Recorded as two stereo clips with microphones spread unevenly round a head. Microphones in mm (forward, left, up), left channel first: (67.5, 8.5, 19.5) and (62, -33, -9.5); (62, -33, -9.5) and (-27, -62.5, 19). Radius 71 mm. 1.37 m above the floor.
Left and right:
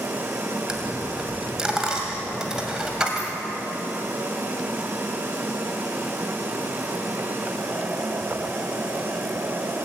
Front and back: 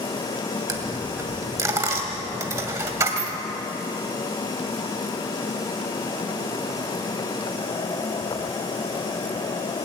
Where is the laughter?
No laughter in this recording.